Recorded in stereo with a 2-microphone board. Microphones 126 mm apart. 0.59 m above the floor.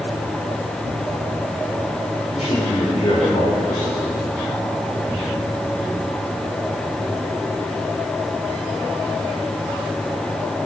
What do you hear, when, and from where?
0.8 s tearing paper: 80° left, 2 m
2.3 s a man speaking: 60° left (ahead or behind), 2 m